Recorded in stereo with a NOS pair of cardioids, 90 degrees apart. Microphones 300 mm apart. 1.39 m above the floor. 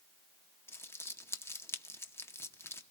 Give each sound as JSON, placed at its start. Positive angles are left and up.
{"t": 0.7, "sound": "crumpling", "azimuth_deg": 10, "distance_m": 0.9}